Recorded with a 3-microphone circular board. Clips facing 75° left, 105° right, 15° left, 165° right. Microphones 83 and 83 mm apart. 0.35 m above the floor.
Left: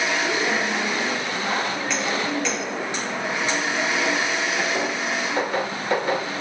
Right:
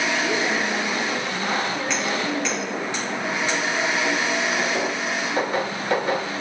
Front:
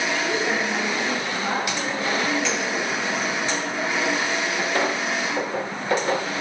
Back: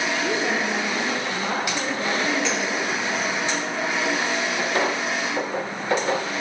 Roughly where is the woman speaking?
Behind.